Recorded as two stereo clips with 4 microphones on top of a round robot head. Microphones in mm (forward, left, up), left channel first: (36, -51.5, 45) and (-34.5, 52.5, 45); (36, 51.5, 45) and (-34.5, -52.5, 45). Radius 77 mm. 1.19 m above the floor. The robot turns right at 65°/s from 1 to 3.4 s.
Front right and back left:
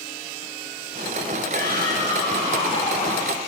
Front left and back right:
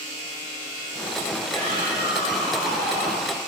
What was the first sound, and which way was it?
A shout, 85° right.